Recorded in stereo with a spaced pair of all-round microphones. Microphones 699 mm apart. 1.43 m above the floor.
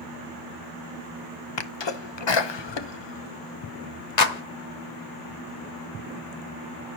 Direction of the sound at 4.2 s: 75° left (ahead or behind).